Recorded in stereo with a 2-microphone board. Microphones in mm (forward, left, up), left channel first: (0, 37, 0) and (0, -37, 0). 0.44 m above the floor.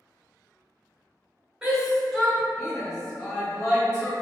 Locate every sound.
1.6 s a shout: 10° right (ahead or behind), 1.4 m; by 4.1 s 20° left (ahead or behind), 2 m